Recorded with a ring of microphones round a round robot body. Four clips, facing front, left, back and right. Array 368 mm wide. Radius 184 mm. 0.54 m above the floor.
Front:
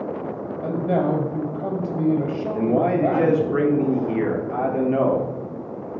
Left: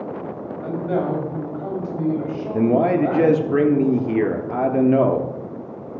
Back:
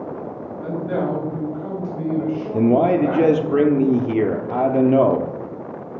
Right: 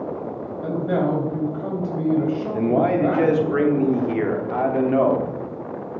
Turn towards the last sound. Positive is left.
turn(degrees=145)